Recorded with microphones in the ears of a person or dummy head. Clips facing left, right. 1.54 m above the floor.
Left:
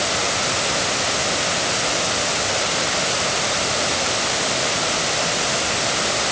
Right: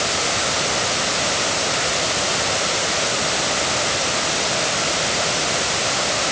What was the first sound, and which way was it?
Only background noise.